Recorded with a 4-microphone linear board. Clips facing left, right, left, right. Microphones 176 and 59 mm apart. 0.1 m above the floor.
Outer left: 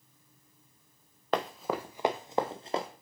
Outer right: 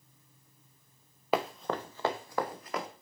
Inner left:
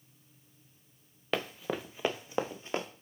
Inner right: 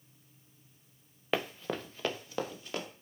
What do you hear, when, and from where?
1.3 s running footsteps: 5° right (ahead or behind), 0.7 m; by 2.9 s 30° left (ahead or behind), 1.2 m